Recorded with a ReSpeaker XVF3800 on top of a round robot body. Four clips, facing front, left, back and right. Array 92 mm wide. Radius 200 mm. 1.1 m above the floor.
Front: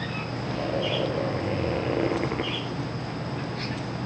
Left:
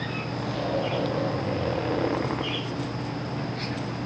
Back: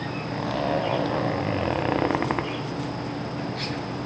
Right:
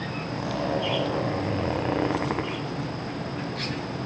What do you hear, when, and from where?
0.3 s a zipper: 160° right, 1.7 m